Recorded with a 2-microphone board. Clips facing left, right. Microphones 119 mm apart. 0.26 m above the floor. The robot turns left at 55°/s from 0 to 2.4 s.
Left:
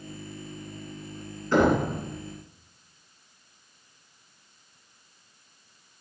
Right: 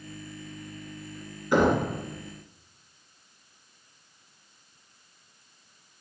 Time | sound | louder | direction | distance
1.5 | knocking | left 1 dB | 15° right (ahead or behind) | 2.5 m